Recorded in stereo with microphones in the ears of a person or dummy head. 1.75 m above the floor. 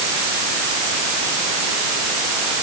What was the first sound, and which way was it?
Only background noise.